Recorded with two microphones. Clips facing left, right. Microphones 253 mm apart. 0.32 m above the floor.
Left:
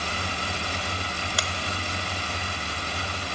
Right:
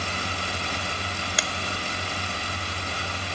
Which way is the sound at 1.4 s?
20° right (ahead or behind).